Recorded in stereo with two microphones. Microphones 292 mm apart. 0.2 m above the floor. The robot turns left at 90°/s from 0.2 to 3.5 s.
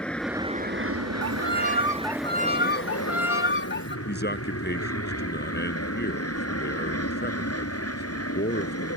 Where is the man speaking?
35° left (ahead or behind).